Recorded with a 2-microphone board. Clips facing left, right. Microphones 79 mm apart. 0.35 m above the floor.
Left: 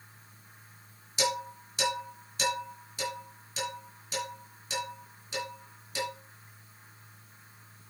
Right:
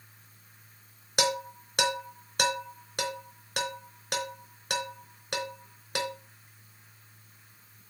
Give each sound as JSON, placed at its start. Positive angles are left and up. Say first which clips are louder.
{"t": 1.2, "sound": "dishes clattering", "louder": "right 2 dB", "side_deg": -65, "distance_m": 3.0}